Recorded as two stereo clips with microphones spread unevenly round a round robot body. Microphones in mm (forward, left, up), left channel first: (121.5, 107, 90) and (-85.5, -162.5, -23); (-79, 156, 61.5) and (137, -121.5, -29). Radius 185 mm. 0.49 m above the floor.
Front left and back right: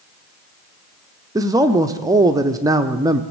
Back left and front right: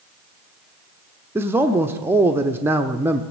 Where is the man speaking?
100° right, 0.9 m.